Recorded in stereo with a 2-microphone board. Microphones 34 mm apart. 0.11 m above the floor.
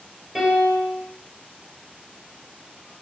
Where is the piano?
15° right (ahead or behind), 1.6 m.